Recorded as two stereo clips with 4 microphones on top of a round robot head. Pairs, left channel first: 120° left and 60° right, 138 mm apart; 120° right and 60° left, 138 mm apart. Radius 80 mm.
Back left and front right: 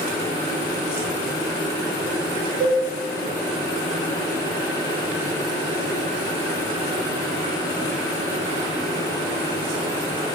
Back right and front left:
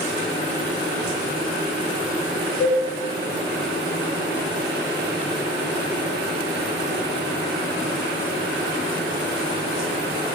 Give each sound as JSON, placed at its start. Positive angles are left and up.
{"t": 2.6, "sound": "a cowbell", "azimuth_deg": -85, "distance_m": 1.8}